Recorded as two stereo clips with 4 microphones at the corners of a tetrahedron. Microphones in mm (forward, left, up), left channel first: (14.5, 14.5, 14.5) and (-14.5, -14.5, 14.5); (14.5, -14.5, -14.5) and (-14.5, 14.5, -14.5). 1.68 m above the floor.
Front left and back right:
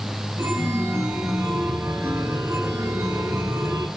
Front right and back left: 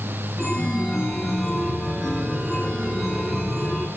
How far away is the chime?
About 7 m.